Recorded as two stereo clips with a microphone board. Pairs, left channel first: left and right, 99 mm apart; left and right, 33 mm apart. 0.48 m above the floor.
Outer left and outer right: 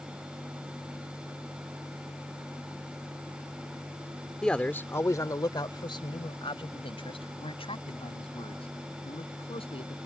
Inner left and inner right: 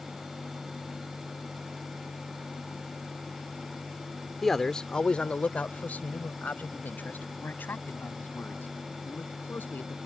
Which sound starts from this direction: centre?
A man speaking, at 4.4 s.